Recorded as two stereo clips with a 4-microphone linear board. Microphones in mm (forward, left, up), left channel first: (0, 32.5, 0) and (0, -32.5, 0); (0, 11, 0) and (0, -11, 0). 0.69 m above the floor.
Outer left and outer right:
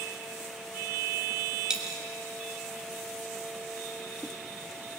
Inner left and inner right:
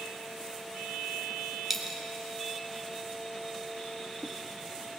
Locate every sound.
1.7 s a dropped coin: 10° right (ahead or behind), 1.3 m